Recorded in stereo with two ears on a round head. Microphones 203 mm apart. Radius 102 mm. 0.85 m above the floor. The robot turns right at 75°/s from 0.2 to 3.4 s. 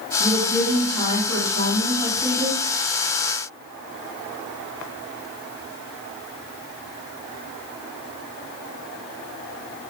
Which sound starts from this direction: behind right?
A woman speaking, at 0.2 s.